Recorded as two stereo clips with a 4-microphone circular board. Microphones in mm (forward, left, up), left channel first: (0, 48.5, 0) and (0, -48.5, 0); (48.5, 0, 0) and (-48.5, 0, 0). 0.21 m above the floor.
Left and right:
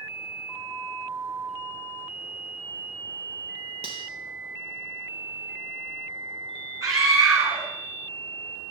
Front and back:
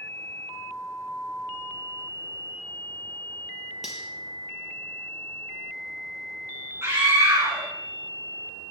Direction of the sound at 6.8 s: 125° right.